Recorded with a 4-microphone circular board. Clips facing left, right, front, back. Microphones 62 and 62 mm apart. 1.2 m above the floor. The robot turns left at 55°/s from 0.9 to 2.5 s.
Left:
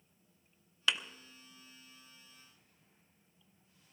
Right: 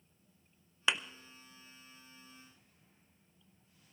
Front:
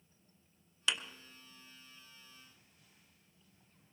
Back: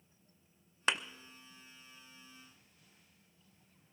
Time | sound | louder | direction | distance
0.9 | a thud | right 1 dB, back 3 dB | 150° right | 0.8 m